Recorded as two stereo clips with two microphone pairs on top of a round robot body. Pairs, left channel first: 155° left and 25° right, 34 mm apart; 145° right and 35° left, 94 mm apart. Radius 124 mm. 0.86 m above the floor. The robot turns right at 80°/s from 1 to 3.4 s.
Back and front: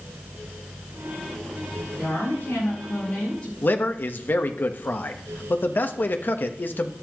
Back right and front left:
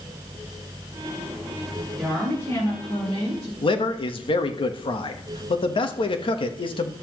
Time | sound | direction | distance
2.0 | a woman speaking | 105° left | 8.5 m
3.6 | a man speaking | 175° right | 1.2 m